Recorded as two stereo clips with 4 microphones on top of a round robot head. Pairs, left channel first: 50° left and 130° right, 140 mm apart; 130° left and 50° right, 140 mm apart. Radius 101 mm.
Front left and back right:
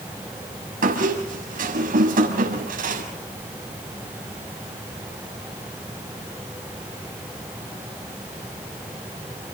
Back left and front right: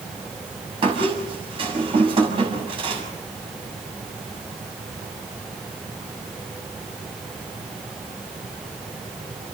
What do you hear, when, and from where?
0.8 s a squeak: 105° right, 6 m